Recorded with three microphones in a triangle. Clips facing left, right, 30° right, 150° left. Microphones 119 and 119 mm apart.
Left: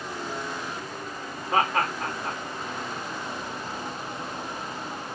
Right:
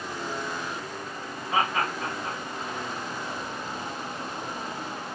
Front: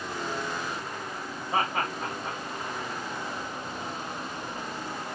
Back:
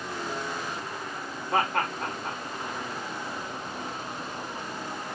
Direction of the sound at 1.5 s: 130° left.